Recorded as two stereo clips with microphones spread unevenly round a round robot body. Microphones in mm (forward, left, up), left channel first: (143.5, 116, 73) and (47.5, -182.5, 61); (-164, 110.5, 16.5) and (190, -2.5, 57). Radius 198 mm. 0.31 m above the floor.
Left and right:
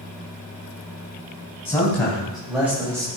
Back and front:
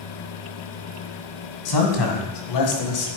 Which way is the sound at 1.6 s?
155° left.